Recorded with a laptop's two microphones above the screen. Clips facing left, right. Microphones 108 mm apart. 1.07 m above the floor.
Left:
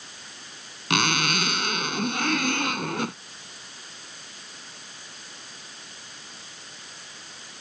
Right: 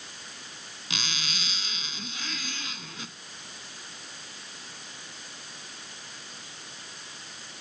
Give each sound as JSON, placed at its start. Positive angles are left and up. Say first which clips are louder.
{"t": 0.9, "sound": "a zipper", "louder": "left 14 dB", "side_deg": 65}